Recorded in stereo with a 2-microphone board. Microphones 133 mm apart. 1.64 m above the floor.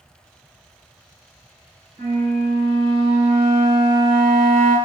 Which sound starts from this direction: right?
A flute, at 2.0 s.